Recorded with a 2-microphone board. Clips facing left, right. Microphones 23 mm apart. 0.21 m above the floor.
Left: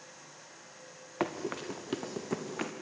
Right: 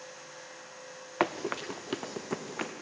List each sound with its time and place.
1.2 s running footsteps: 25° right (ahead or behind), 1.0 m; by 2.7 s 5° right (ahead or behind), 2 m